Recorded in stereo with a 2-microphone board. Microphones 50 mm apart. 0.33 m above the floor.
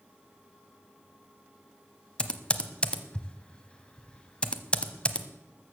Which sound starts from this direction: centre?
Typing on a keyboard, at 2.2 s.